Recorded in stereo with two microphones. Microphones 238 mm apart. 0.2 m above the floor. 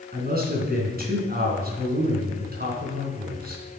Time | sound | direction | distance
0.1 | a man speaking | 40° right (ahead or behind) | 2.5 m